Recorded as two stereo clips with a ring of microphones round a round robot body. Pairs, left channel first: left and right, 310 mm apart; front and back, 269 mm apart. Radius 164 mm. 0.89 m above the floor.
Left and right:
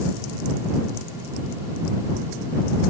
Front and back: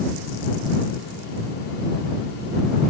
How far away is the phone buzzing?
No phone buzzing in this recording.